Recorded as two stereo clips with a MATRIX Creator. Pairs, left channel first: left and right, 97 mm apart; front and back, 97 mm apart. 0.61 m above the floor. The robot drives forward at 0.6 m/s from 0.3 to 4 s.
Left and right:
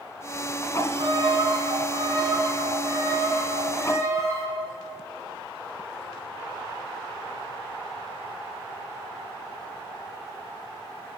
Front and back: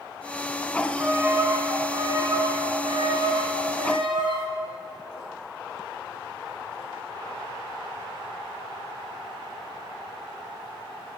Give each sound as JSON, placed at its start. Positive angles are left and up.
{"t": 0.8, "sound": "a violin", "azimuth_deg": -105, "distance_m": 1.4}